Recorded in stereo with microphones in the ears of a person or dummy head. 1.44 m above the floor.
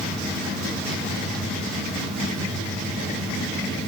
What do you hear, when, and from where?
0.0 s an engine running: 5° left (ahead or behind), 1.8 m